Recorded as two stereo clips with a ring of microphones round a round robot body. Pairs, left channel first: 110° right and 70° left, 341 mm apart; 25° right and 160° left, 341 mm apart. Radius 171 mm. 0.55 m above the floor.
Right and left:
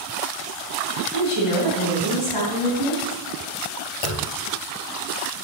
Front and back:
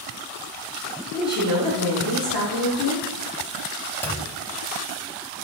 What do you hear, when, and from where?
1.1 s a woman speaking: 100° right, 4 m
4.0 s a clunk: 105° right, 0.7 m